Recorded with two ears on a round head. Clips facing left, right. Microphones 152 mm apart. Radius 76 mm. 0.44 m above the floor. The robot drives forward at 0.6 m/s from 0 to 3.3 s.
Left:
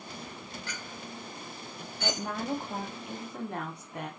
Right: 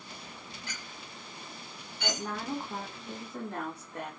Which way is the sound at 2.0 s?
20° left (ahead or behind).